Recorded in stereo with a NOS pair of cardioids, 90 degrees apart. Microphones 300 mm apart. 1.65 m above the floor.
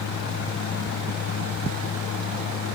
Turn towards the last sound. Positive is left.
turn(degrees=60)